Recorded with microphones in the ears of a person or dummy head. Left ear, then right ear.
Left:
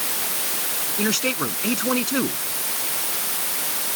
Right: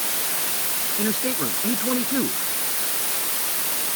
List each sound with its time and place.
1.0 s a man speaking: 70° left (ahead or behind)